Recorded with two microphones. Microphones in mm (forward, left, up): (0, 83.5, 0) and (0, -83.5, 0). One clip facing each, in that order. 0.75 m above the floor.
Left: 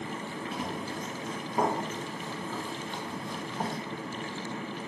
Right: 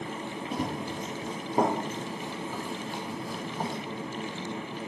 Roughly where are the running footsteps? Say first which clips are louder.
Right 5 dB; right.